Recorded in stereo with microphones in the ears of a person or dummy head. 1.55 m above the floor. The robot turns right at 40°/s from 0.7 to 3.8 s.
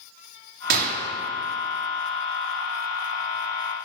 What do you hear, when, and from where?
0.7 s a gunshot: 55° right (ahead or behind), 1.6 m; by 1.0 s 45° right (ahead or behind), 1.6 m